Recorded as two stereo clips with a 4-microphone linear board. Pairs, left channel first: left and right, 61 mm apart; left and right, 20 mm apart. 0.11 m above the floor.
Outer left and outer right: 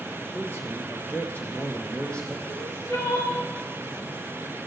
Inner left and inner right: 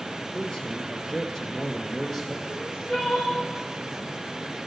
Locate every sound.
0.3 s a man speaking: 45° left (ahead or behind), 1.8 m; by 2.4 s 15° left (ahead or behind), 2.0 m
2.5 s crying: 70° left (ahead or behind), 3.5 m